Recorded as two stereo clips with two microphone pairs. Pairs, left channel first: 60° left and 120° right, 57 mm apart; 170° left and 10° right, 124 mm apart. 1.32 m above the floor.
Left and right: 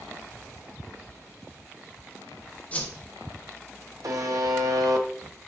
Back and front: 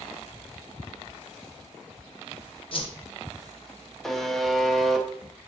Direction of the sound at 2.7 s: 125° left.